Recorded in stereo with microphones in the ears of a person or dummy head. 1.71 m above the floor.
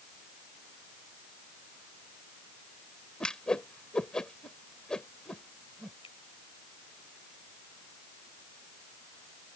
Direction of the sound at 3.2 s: 5° left (ahead or behind).